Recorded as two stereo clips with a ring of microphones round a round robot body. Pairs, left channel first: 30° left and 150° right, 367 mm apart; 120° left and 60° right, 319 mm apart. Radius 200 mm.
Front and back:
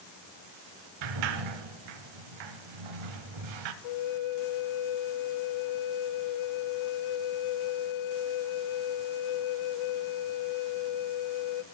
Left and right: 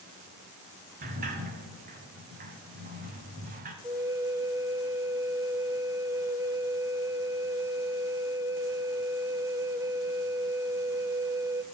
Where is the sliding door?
130° right, 0.8 m.